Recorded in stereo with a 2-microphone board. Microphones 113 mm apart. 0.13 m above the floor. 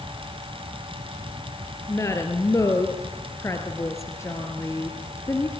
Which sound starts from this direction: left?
A woman speaking, at 1.9 s.